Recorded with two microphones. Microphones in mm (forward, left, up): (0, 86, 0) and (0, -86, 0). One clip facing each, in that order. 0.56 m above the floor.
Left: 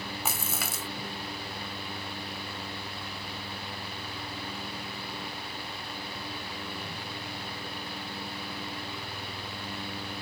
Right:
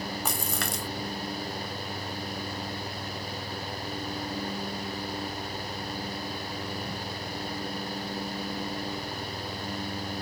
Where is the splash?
5° left (ahead or behind).